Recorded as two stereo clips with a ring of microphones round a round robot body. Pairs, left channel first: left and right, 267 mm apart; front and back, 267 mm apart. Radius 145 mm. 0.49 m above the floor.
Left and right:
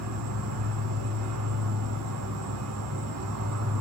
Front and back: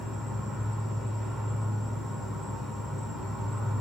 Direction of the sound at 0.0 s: 90° right.